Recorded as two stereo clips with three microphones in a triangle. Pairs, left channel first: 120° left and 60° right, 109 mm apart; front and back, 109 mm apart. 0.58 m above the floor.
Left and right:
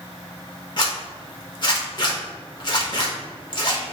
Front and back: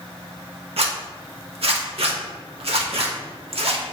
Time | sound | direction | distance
0.8 | a zipper | 165° left | 0.8 m